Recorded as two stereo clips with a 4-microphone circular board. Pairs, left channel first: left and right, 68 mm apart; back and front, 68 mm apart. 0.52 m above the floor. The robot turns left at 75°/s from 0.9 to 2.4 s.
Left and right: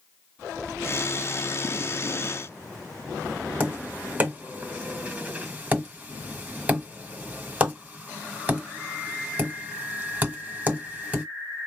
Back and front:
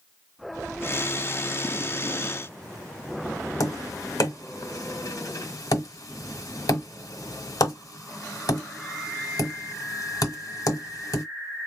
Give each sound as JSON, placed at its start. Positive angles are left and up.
{"t": 3.6, "sound": "tapping", "azimuth_deg": -160, "distance_m": 1.3}